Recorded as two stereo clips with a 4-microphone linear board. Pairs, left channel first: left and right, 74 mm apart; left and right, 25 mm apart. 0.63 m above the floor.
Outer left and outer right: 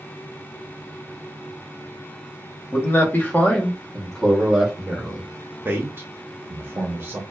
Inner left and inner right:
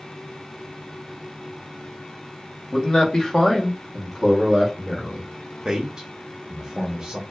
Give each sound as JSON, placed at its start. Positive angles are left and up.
{"t": 2.7, "sound": "a man speaking", "side_deg": 30, "distance_m": 0.8}
{"t": 5.7, "sound": "a man speaking", "side_deg": -30, "distance_m": 0.6}